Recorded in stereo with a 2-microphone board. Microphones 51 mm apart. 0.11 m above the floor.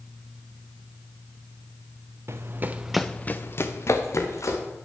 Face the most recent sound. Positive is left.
turn(degrees=70)  # may be behind; listen again after turning